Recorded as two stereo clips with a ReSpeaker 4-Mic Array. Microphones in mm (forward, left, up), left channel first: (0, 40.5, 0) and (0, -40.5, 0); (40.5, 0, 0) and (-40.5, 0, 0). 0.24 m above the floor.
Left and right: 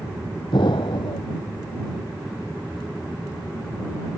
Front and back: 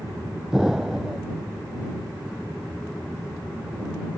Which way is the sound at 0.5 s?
95° left.